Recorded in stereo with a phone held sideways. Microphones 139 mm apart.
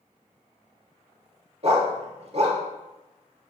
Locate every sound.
1.6 s a dog barking: 45° right (ahead or behind), 1.4 m